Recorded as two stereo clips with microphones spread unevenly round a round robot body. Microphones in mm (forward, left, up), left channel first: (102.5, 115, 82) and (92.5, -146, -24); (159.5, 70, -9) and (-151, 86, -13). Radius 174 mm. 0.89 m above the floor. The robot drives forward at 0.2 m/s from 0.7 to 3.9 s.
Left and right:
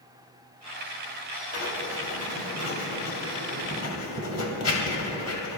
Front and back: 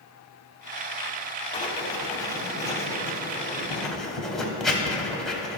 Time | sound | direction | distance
1.5 | writing | 70° left | 1.8 m